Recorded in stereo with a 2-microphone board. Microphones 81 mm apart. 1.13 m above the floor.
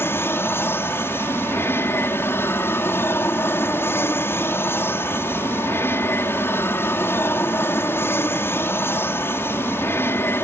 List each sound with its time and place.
0.0 s an aircraft: 30° left (ahead or behind)